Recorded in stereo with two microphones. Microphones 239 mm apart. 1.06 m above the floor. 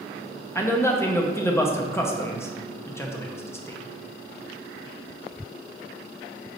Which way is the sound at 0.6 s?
10° left (ahead or behind).